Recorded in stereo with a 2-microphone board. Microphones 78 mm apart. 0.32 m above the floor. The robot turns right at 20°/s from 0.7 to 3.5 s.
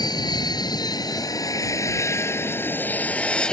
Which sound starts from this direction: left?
An aircraft, at 0.0 s.